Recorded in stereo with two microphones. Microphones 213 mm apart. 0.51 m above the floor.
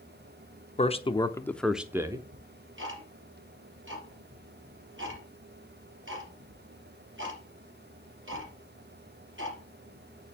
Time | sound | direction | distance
0.8 | a man speaking | 30° left (ahead or behind) | 0.8 m
2.3 | ticking | 70° right (ahead or behind) | 3.5 m